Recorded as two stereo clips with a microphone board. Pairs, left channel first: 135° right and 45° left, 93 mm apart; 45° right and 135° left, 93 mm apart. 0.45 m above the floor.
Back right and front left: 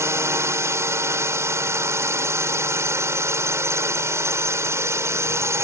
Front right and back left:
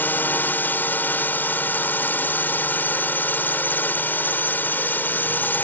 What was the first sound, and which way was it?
A drone, 10° left.